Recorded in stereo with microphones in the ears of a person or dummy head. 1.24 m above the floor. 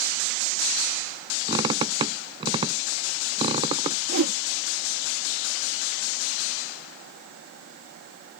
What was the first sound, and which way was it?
A squeak, 30° right (ahead or behind).